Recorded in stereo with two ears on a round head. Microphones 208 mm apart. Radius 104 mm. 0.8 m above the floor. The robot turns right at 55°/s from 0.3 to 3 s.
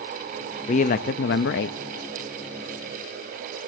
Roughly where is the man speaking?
Ahead left.